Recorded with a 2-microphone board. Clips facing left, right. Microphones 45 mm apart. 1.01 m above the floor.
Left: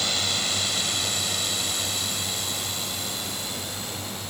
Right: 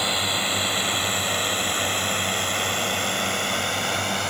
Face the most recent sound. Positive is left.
turn(degrees=-65)  # may be behind; listen again after turning